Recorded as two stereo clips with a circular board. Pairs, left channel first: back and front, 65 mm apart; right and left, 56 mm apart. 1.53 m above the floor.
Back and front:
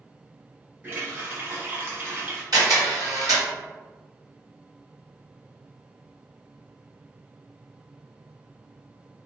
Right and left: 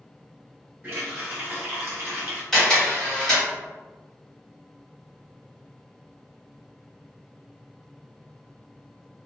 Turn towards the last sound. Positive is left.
turn(degrees=-5)